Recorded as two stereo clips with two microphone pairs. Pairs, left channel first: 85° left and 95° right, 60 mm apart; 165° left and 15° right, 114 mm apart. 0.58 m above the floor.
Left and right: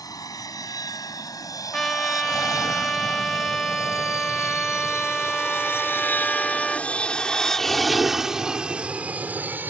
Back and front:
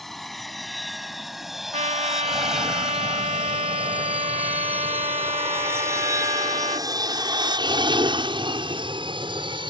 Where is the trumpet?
Straight ahead.